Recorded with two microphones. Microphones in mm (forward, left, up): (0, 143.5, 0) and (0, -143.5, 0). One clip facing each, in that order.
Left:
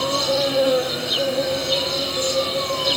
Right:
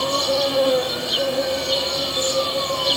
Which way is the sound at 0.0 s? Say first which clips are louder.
Even; centre (ahead or behind).